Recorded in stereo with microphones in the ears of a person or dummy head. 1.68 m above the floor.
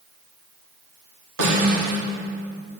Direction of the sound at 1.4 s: 85° right.